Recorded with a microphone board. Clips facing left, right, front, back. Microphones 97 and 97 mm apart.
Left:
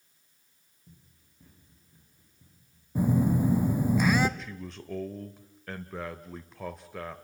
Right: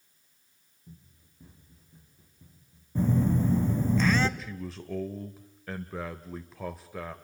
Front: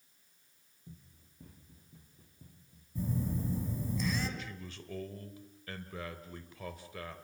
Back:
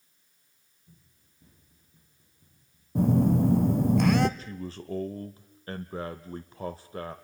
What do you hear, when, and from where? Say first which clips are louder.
0.9 s running footsteps: right 6 dB, front 6 dB; 10° right, 7.5 m; by 2.9 s 15° right, 6.5 m
3.0 s a phone buzzing: left 1 dB, back 14 dB; 170° left, 1.0 m
4.4 s a man speaking: right 2 dB, back 8 dB; 175° right, 1.0 m